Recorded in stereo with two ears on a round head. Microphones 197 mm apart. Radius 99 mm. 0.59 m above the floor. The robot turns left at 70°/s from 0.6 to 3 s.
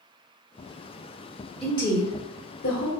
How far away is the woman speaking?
About 1.4 m.